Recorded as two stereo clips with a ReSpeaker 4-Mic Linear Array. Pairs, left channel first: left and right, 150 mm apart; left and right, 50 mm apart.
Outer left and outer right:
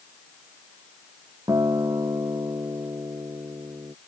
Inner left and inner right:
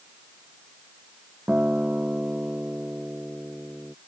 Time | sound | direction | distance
1.5 | a guitar | 25° right (ahead or behind) | ?